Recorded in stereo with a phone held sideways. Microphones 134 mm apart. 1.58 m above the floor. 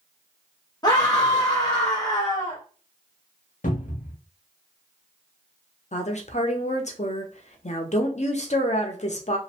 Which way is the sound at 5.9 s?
55° left (ahead or behind).